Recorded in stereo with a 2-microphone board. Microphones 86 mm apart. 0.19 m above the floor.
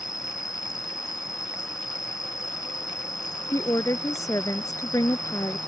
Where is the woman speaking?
40° left (ahead or behind).